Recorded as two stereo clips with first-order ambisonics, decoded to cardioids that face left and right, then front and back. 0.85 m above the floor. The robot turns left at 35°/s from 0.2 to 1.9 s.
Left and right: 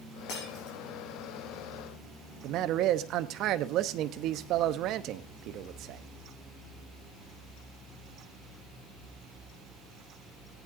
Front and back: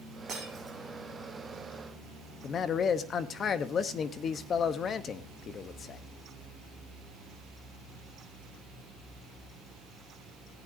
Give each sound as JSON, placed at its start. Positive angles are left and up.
{"t": 0.3, "sound": "breaking glass", "azimuth_deg": 115, "distance_m": 5.5}
{"t": 2.4, "sound": "a man speaking", "azimuth_deg": -55, "distance_m": 0.8}